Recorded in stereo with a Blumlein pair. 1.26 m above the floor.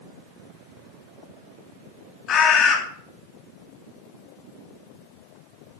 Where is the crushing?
No crushing in this recording.